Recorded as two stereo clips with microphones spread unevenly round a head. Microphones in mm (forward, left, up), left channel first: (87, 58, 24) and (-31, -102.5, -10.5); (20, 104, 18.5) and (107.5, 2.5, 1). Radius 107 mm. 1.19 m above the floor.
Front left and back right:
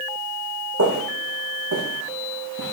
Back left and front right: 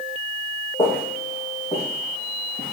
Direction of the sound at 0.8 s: 155° right.